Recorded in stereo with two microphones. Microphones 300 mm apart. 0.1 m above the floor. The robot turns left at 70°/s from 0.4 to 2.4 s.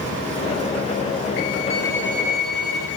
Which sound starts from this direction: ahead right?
A violin, at 1.7 s.